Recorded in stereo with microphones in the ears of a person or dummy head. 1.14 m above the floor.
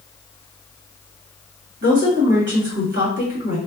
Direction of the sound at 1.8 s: 60° right (ahead or behind).